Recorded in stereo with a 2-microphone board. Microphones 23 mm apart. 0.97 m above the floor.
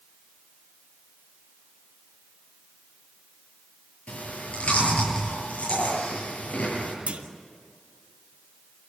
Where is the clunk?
70° right (ahead or behind), 2.5 m.